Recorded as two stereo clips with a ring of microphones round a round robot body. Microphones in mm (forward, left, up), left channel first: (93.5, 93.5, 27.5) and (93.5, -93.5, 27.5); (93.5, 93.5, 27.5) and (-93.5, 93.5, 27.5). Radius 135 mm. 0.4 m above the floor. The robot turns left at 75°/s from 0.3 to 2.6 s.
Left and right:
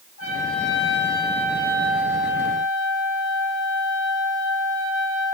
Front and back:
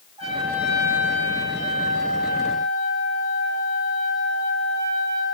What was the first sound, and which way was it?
A trumpet, 120° left.